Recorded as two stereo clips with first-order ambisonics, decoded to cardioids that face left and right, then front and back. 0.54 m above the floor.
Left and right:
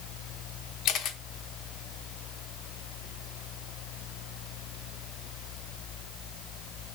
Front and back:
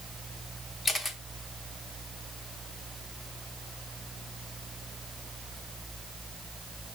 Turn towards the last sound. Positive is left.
turn(degrees=75)